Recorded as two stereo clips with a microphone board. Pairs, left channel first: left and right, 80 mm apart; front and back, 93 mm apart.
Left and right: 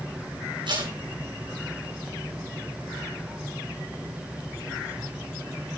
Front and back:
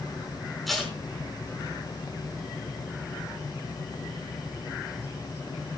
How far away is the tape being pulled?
About 5.5 m.